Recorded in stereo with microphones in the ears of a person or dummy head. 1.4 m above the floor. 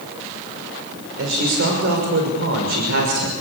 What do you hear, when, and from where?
1.2 s a man speaking: 70° right (ahead or behind), 6 m